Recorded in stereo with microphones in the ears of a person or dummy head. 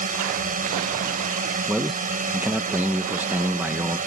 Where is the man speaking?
10° right (ahead or behind).